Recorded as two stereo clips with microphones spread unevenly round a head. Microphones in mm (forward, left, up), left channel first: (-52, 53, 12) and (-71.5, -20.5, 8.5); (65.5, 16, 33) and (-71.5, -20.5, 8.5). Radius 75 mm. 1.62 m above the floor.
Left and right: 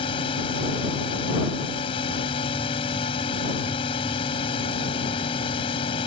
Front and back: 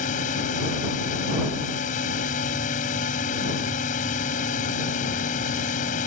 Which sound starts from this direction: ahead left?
A drone, at 0.0 s.